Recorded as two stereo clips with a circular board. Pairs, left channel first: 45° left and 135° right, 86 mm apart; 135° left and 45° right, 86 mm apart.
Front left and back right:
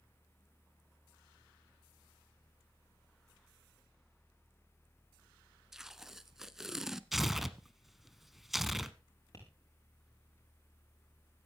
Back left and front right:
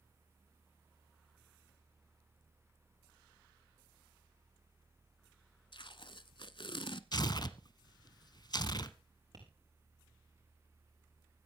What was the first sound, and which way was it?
Tape being pulled, 140° left.